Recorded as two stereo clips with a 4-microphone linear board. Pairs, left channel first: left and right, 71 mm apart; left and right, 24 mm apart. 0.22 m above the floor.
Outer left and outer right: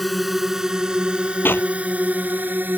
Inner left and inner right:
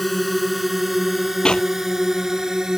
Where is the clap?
30° left (ahead or behind).